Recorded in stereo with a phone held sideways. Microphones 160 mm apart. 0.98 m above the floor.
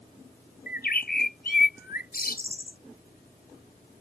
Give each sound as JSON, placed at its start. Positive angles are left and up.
{"t": 0.7, "sound": "a bird", "side_deg": 80}